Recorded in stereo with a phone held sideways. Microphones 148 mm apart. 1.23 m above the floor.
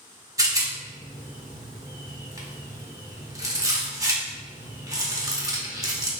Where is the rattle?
20° right (ahead or behind), 0.7 m.